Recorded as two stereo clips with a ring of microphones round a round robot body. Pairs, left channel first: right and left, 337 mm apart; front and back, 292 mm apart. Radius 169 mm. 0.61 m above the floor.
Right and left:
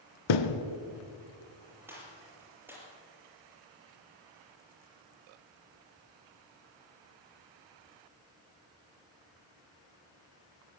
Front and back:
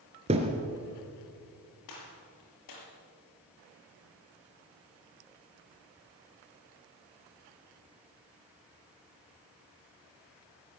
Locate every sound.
0.3 s a thud: 105° right, 1.7 m
1.9 s a gunshot: 5° left, 6 m